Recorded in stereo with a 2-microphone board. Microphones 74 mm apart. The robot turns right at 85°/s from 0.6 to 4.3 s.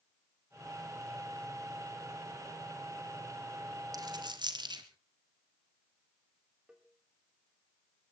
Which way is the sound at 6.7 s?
10° right (ahead or behind).